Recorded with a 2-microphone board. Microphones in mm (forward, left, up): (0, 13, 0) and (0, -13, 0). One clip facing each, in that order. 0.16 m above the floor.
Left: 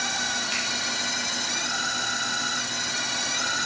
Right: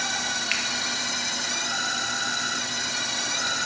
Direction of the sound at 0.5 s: 65° right (ahead or behind).